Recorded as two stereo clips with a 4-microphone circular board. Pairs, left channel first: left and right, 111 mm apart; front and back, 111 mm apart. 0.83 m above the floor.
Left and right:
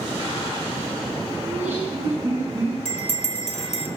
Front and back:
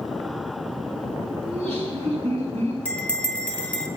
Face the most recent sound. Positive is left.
turn(degrees=75)